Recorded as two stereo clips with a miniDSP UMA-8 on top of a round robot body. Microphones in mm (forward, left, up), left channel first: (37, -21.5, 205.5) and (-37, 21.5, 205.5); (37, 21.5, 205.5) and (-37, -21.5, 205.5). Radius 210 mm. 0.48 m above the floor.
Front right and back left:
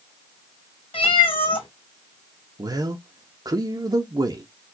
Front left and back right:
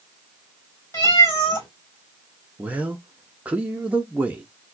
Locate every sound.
0.9 s a cat meowing: 25° right, 2.5 m
2.6 s a man speaking: 145° left, 0.9 m